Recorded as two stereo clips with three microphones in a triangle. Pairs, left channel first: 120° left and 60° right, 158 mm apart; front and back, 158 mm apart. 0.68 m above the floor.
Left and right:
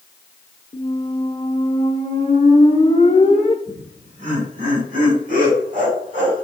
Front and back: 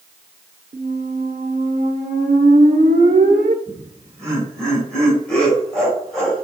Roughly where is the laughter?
Right.